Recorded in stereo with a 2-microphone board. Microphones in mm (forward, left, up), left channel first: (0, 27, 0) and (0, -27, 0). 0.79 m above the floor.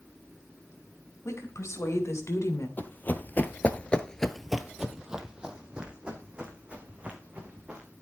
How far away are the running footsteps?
About 1.6 m.